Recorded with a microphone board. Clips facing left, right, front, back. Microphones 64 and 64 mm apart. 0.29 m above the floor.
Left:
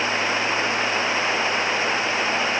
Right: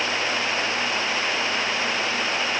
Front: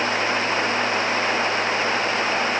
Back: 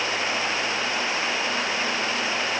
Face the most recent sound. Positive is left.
No sound to turn to.